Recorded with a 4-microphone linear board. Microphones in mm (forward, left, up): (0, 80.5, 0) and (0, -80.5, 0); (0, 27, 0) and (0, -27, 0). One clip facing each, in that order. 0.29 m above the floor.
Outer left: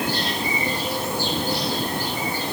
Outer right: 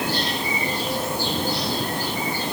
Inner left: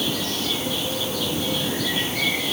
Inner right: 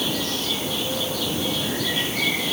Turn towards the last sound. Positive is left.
No sound to turn to.